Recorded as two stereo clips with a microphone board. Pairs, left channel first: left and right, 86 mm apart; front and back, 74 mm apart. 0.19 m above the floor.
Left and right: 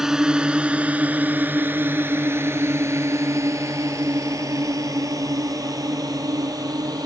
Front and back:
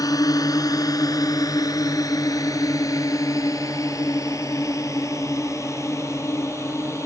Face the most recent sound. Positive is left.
turn(degrees=-50)